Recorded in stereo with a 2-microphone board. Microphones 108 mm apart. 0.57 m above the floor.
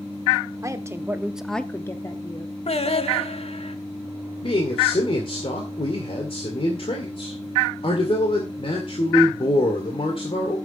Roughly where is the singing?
Left.